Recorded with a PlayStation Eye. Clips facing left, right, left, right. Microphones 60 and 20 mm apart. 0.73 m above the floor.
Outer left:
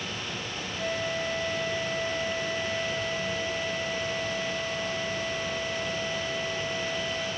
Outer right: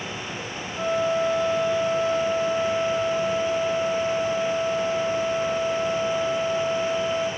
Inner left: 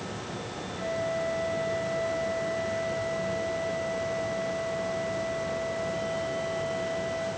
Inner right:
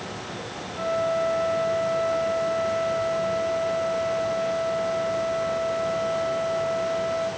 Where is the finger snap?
No finger snap in this recording.